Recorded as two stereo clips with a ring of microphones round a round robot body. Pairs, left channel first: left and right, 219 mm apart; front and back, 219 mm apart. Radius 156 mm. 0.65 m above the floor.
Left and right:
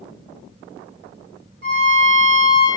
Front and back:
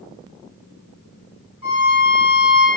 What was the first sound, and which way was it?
A violin, 45° right.